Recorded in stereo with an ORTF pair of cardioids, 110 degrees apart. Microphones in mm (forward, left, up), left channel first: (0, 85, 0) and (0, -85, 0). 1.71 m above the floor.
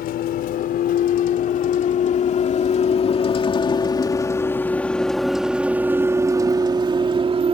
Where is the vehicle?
65° left; by 7.5 s 40° right.